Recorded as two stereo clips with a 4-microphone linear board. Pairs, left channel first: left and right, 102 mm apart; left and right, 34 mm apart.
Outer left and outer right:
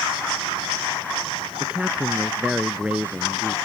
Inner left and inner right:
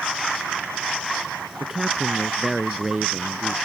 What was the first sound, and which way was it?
A man speaking, 10° right (ahead or behind).